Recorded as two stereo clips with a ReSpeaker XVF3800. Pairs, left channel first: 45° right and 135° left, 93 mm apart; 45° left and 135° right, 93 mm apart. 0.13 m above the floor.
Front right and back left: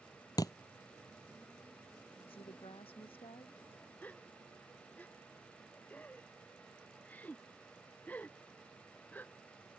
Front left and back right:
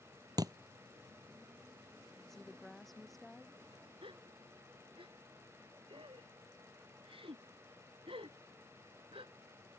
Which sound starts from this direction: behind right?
A gasp, at 4.0 s.